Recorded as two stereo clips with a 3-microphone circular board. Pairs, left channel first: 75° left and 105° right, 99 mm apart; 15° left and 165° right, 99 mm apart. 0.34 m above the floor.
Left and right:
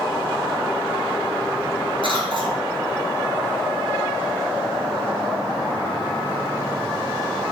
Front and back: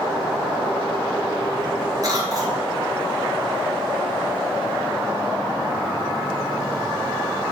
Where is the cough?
125° right, 2.5 m.